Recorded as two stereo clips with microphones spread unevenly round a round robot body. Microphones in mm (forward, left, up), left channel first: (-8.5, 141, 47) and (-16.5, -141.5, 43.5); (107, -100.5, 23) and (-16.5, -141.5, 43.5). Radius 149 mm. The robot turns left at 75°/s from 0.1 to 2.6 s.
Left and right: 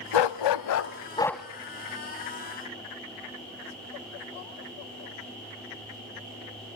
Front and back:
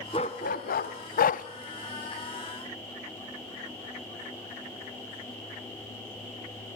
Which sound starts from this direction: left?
A dog barking, at 0.1 s.